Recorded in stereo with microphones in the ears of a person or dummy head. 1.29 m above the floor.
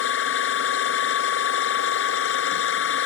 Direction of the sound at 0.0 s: 80° left.